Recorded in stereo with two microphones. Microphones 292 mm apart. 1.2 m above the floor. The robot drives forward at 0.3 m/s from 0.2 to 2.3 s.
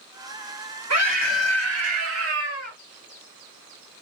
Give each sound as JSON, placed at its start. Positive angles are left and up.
{"t": 0.9, "sound": "a scream", "side_deg": -65, "distance_m": 1.3}